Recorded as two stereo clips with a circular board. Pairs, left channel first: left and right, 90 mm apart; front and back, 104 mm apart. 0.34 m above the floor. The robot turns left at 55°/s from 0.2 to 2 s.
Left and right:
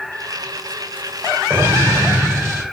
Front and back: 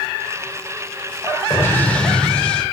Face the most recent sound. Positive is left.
turn(degrees=-70)